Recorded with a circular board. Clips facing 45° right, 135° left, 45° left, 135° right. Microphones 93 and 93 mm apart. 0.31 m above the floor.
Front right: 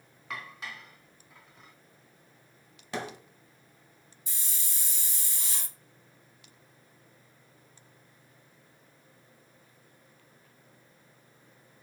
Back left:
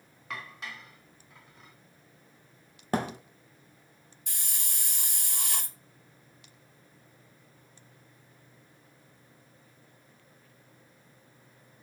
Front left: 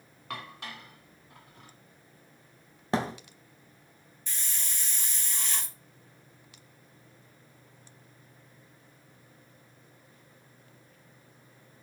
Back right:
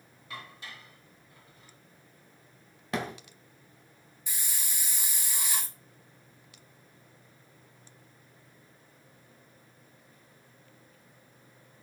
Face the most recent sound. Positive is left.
turn(degrees=145)